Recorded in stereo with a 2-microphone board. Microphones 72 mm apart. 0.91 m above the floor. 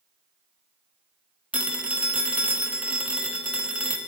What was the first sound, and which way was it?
A phone ringing, 20° right (ahead or behind).